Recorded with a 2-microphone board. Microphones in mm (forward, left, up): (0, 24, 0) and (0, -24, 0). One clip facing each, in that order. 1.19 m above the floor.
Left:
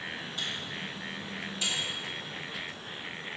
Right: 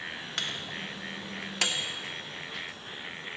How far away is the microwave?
About 0.7 m.